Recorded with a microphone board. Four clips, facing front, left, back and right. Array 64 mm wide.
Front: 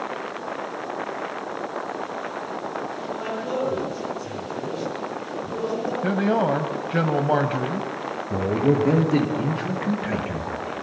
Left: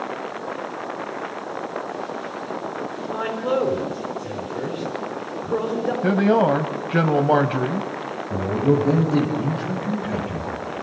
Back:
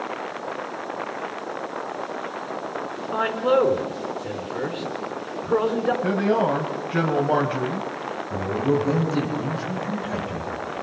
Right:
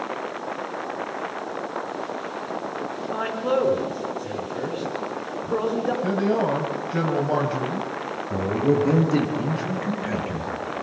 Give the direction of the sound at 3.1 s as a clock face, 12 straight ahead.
6 o'clock.